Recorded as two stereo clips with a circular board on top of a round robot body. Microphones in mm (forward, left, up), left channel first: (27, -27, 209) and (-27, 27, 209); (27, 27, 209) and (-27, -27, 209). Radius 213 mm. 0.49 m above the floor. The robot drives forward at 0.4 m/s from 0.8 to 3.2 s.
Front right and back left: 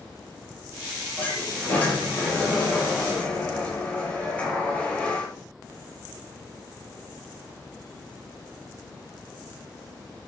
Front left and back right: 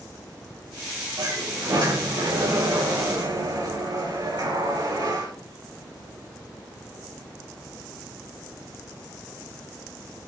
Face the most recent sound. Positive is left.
turn(degrees=-115)